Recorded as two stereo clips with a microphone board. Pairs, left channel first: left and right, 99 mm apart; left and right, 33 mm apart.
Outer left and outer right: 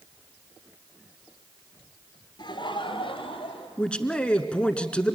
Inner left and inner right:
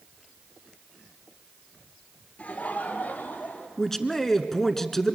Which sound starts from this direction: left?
Laughter, at 2.4 s.